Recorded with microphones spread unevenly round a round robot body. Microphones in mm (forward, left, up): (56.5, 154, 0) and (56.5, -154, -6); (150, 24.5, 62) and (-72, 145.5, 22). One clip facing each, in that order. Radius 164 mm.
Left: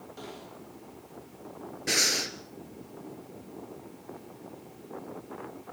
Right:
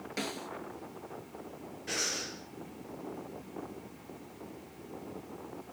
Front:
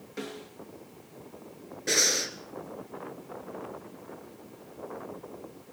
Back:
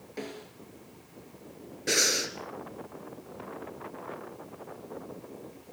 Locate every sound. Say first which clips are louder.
0.2 s a snare drum: right 6 dB, front 1 dB; 110° right, 2.5 m
1.9 s breathing: left 7 dB, back 1 dB; 70° left, 2.5 m